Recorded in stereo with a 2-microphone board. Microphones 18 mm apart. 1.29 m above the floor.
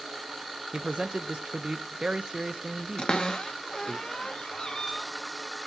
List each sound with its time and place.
0.7 s a man speaking: 50° right (ahead or behind), 1.1 m
3.0 s a cupboard door: 45° left (ahead or behind), 0.8 m